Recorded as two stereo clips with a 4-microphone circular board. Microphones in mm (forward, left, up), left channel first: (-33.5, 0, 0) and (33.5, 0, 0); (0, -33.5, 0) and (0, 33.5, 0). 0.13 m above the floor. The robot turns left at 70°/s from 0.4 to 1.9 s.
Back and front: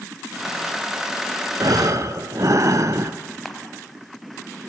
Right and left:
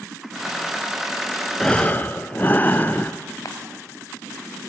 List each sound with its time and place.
1.6 s breathing: 10° right, 0.8 m; by 3.1 s 35° right, 0.8 m
3.5 s a camera shutter: 95° right, 1.6 m